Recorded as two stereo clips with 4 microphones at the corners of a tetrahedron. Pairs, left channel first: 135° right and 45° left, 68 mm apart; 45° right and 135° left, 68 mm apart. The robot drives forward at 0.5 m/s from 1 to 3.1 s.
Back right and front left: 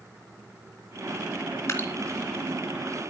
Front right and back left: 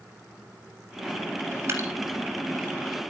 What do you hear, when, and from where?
1.7 s dripping: 175° left, 3 m